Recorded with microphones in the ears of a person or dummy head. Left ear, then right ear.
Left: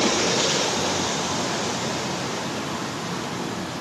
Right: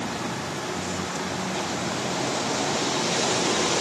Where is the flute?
No flute in this recording.